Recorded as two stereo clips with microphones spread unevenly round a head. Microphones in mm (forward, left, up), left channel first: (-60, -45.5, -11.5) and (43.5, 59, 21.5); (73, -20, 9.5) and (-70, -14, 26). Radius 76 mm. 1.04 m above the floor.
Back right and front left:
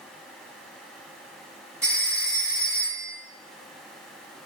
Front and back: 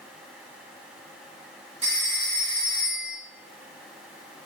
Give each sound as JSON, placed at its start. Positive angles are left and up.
{"t": 1.8, "sound": "a phone ringing", "azimuth_deg": 120, "distance_m": 1.9}